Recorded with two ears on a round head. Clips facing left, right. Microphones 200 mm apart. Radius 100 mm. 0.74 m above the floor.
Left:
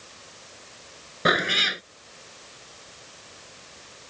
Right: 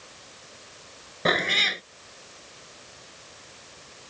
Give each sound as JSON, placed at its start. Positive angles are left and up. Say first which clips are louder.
{"t": 1.2, "sound": "a cat meowing", "louder": "left 1 dB", "side_deg": 15}